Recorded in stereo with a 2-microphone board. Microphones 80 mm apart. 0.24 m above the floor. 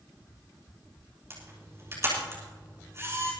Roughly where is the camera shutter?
Right.